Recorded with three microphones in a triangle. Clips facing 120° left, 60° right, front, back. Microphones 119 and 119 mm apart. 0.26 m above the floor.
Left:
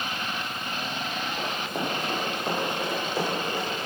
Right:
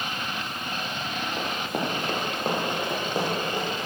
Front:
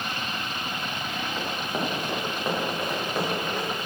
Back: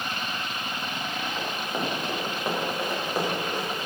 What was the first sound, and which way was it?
Running footsteps, 85° right.